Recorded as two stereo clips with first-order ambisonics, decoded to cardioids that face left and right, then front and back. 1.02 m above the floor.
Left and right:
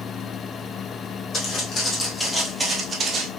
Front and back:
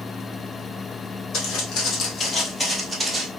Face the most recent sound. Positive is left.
turn(degrees=-115)